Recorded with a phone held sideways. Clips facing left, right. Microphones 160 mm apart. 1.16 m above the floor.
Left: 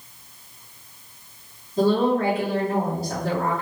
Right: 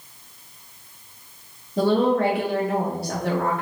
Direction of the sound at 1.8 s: 75° right (ahead or behind).